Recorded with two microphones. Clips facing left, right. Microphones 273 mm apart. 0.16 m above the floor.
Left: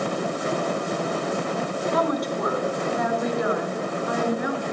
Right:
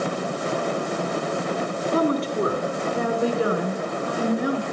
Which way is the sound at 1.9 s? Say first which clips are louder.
Right 5 dB; 30° right (ahead or behind).